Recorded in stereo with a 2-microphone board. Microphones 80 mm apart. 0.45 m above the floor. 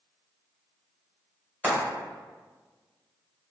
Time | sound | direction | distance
1.6 | frying | 25° right (ahead or behind) | 1.7 m